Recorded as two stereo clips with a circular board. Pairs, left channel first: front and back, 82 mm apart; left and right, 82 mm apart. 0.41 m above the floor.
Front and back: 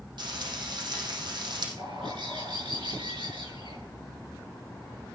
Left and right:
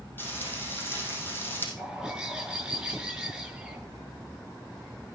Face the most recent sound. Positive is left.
turn(degrees=-175)